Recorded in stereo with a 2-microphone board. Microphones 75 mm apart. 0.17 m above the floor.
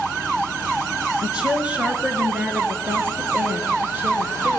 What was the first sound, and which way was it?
A woman speaking, 10° right (ahead or behind).